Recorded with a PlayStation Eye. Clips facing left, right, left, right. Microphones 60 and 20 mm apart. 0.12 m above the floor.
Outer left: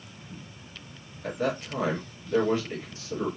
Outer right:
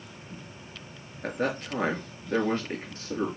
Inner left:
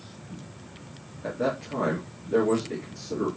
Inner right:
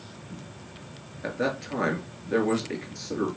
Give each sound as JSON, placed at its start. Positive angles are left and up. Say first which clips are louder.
{"t": 1.2, "sound": "a man speaking", "louder": "even, even", "side_deg": -50, "distance_m": 2.5}